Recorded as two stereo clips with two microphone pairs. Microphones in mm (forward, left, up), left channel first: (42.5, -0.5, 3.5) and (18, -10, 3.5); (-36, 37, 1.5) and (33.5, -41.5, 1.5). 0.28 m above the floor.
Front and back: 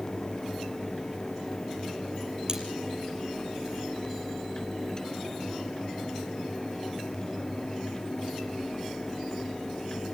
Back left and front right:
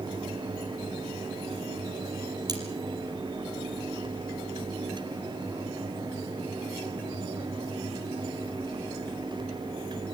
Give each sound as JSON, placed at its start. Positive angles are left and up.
{"t": 2.5, "sound": "cutlery clinking", "azimuth_deg": -100, "distance_m": 5.5}